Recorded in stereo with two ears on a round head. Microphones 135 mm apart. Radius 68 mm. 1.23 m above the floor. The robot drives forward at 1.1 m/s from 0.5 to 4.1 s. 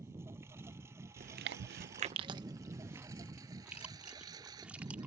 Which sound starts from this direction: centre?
A lawn mower, at 0.0 s.